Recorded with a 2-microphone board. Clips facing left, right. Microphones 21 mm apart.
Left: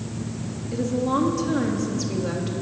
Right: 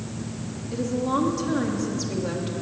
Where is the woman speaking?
Centre (ahead or behind), 3 m.